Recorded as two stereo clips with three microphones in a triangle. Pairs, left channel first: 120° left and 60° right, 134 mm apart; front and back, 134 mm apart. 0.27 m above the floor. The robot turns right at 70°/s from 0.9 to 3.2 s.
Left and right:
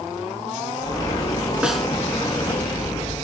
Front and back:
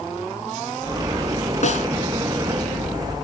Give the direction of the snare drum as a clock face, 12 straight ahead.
11 o'clock.